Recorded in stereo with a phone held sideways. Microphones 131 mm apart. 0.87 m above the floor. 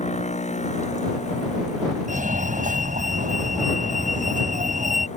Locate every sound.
0.0 s a machine running: 60° left (ahead or behind)
2.1 s a fire alarm: 80° right